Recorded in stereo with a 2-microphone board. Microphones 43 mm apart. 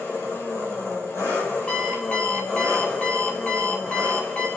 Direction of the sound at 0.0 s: 85° left.